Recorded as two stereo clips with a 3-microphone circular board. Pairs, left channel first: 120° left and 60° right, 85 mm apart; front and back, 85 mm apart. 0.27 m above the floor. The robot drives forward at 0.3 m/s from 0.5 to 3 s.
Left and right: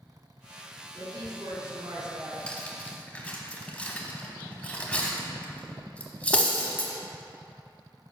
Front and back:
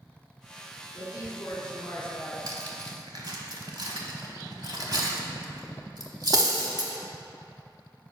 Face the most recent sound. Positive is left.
turn(degrees=-170)